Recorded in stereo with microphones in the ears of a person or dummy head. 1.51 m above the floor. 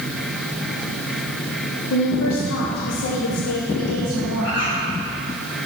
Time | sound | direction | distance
1.9 | a woman speaking | 80° left | 1.0 m
4.4 | a bird | 70° left (ahead or behind) | 3 m